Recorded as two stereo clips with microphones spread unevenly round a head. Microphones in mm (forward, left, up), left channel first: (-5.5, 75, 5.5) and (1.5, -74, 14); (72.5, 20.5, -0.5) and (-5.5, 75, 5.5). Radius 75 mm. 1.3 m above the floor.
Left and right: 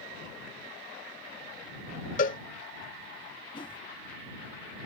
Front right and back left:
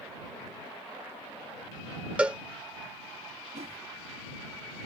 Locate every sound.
2.2 s a cowbell: 75° left
3.5 s a whoosh: 155° left